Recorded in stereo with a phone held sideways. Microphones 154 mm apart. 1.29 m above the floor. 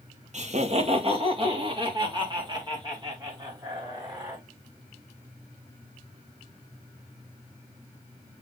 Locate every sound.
0.3 s laughter: 55° right (ahead or behind), 1.3 m; by 4.4 s 25° right (ahead or behind), 4.5 m